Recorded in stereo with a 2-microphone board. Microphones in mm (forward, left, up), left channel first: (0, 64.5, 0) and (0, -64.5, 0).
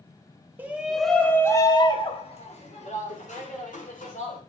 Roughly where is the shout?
Centre.